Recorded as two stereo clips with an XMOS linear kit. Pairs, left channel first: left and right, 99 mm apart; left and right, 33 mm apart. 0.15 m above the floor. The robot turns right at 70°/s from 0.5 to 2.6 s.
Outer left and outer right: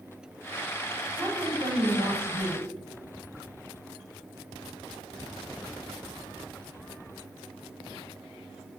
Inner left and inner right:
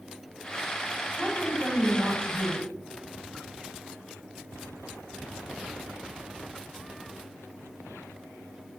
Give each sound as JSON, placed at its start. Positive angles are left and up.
{"t": 1.1, "sound": "a woman speaking", "azimuth_deg": -160, "distance_m": 6.5}